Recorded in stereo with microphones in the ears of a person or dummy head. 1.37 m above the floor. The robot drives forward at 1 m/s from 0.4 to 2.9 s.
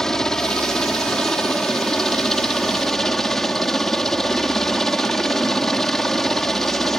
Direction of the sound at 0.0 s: 5° left (ahead or behind).